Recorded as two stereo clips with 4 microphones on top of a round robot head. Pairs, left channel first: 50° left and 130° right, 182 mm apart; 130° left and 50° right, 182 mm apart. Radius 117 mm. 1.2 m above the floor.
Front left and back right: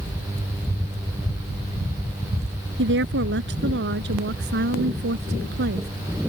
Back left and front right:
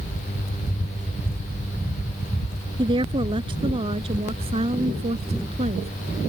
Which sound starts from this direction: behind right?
A woman speaking, at 2.8 s.